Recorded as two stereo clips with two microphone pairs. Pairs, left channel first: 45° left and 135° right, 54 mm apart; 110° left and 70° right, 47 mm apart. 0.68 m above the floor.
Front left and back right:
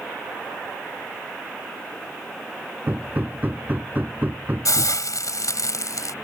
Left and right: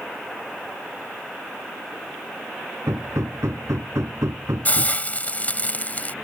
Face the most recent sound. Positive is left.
turn(degrees=55)